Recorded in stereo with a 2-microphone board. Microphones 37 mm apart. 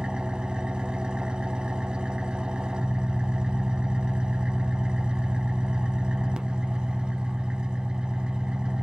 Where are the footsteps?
No footsteps in this recording.